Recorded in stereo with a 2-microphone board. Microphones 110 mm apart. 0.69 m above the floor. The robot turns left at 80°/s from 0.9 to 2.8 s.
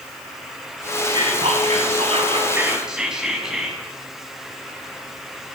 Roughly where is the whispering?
Ahead right.